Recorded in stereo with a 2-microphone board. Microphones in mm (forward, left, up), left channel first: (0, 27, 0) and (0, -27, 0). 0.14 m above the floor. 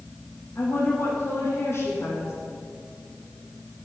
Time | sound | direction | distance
0.6 | a woman speaking | 50° left (ahead or behind) | 6.5 m